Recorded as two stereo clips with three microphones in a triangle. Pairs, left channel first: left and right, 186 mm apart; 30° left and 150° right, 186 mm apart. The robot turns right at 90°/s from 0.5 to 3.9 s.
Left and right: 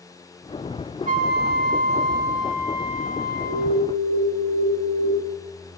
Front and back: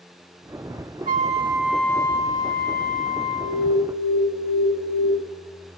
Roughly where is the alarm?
Ahead right.